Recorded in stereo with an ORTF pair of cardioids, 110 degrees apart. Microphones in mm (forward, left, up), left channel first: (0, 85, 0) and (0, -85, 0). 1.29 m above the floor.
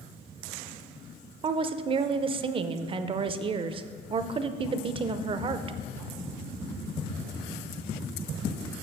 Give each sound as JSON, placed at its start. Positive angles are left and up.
{"t": 1.4, "sound": "a woman speaking", "azimuth_deg": -30, "distance_m": 0.5}